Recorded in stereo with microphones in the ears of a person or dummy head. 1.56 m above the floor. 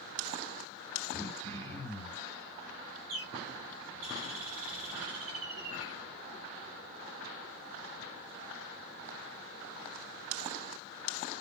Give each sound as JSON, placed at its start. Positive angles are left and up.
{"t": 1.1, "sound": "throat clearing", "side_deg": 10, "distance_m": 2.5}
{"t": 3.1, "sound": "a bird", "side_deg": -85, "distance_m": 2.5}